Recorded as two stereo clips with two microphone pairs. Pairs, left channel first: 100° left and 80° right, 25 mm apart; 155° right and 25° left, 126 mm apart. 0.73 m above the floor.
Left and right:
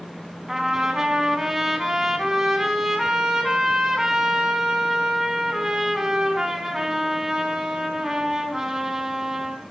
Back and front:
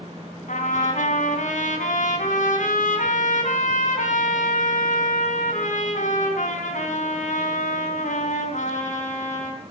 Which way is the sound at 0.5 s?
150° right.